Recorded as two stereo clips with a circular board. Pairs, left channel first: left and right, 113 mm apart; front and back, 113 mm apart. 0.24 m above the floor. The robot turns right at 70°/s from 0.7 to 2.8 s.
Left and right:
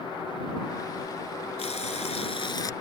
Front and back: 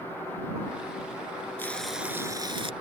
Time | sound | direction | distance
1.6 | frying | 70° left | ?